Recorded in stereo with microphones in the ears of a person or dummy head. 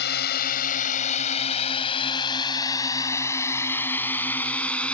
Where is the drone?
60° left (ahead or behind); by 4.9 s 5° left (ahead or behind).